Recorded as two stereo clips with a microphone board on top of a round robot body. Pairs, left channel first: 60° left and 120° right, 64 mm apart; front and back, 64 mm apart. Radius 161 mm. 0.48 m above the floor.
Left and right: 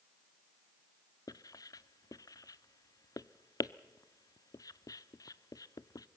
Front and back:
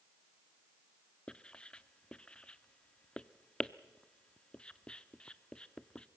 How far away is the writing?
About 0.6 m.